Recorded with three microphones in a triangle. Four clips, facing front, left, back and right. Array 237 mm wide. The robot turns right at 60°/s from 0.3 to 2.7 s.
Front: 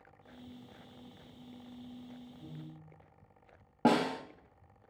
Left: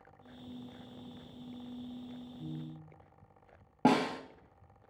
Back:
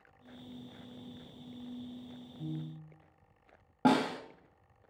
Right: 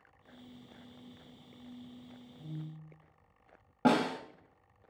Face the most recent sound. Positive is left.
turn(degrees=70)